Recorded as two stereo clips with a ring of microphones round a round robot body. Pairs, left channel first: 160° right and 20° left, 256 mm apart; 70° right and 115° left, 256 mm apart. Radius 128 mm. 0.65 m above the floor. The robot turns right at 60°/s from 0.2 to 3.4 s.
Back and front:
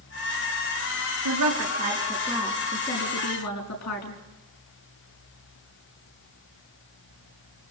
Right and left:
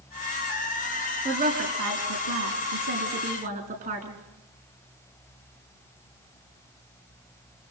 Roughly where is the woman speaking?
Ahead left.